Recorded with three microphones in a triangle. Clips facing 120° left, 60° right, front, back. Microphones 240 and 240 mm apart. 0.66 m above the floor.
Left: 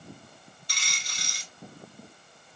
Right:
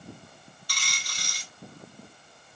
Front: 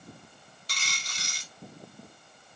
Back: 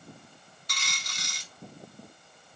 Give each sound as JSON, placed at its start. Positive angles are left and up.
{"t": 0.7, "sound": "a dropped coin", "azimuth_deg": 55, "distance_m": 1.2}